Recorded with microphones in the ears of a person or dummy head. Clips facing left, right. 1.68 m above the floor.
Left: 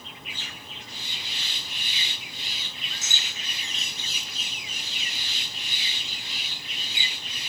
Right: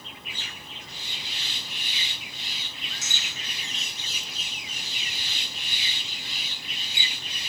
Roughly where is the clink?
Right.